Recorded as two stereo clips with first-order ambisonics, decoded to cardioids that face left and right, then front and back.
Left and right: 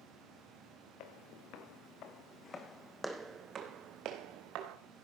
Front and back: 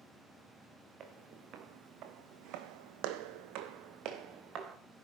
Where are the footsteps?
125° left, 3.5 m; by 4.8 s 125° right, 3.5 m.